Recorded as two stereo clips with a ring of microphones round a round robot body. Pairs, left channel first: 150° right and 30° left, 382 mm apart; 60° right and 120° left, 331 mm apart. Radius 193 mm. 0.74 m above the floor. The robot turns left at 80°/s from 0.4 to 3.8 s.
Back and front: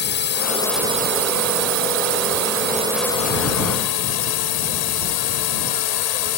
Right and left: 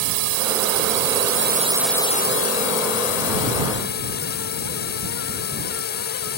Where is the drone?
150° left; by 6.4 s 125° right.